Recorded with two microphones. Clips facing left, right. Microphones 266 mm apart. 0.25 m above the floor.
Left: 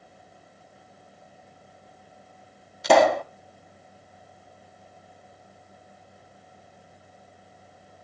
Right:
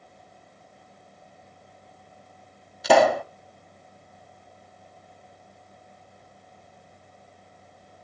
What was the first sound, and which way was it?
A pop, 5° right (ahead or behind).